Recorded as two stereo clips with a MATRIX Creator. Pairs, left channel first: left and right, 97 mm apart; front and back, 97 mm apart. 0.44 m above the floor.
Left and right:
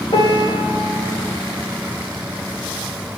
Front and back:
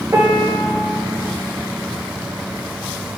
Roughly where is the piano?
Behind left.